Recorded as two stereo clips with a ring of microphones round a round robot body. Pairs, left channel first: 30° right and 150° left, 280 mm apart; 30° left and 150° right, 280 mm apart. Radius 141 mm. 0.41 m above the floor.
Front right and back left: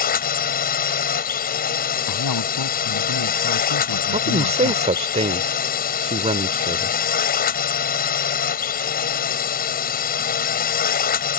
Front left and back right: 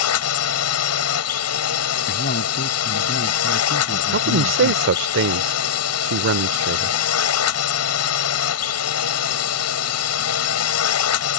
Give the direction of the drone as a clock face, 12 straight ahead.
11 o'clock.